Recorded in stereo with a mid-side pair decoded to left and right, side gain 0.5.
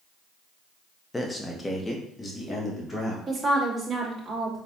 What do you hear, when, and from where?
1.1 s a man speaking: 15° left, 1.0 m; by 3.2 s 20° left, 2.5 m
3.3 s a woman speaking: 20° right, 2.5 m